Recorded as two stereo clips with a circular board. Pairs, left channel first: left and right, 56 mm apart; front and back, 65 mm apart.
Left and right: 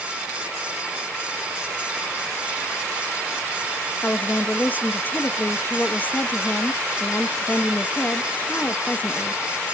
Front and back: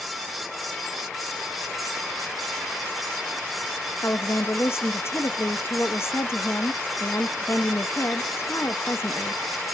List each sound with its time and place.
4.0 s a woman speaking: 40° left, 0.6 m